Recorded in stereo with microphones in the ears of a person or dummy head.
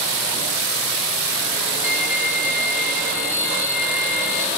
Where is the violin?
35° left (ahead or behind), 2.5 m.